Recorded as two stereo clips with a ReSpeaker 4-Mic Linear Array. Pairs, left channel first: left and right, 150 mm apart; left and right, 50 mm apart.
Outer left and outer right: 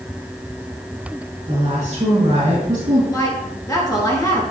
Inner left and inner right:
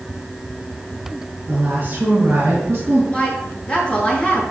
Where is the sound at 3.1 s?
25° left (ahead or behind), 2.5 m.